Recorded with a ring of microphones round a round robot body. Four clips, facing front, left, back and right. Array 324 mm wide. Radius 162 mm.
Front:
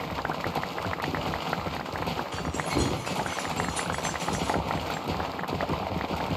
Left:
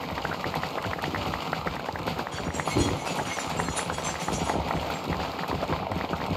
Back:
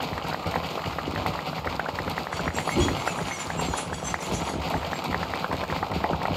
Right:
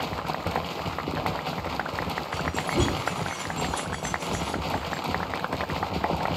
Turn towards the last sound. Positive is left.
turn(degrees=15)